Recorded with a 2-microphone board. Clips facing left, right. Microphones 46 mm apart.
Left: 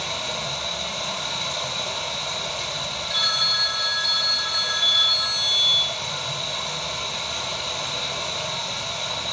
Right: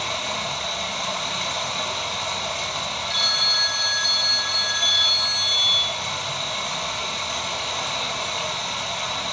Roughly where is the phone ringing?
Centre.